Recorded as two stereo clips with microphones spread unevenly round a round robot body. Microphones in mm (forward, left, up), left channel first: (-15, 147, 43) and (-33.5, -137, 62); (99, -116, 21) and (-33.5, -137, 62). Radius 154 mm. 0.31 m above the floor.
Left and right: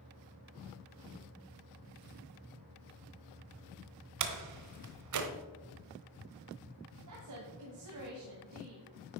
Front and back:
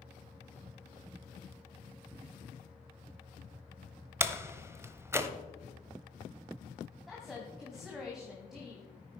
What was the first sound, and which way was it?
A door slam, 90° right.